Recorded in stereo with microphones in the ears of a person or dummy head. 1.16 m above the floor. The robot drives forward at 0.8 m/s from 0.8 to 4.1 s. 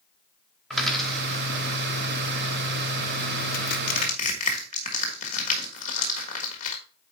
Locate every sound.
0.7 s a dropped coin: centre (ahead or behind), 1.0 m
3.5 s crushing: 50° left (ahead or behind), 1.2 m; by 6.8 s 35° left (ahead or behind), 1.5 m